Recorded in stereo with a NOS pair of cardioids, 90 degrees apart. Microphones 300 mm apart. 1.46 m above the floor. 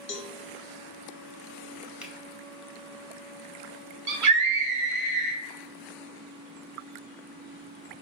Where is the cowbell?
40° left, 0.6 m.